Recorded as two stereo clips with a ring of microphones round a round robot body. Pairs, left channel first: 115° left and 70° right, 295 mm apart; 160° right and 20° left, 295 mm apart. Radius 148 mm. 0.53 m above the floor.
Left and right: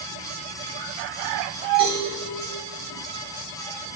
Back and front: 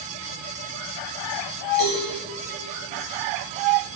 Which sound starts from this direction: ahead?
A cowbell, at 1.8 s.